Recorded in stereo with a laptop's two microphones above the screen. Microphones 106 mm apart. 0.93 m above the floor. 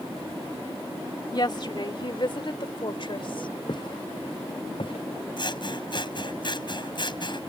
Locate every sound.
1.3 s a woman speaking: 45° left (ahead or behind); by 3.5 s 55° left (ahead or behind)
3.7 s footsteps: 45° left (ahead or behind); by 6.1 s 55° left (ahead or behind)
5.4 s scissors: 50° left (ahead or behind)